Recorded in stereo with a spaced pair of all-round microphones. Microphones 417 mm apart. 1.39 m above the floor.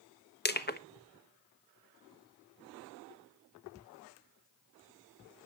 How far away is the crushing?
About 1.0 m.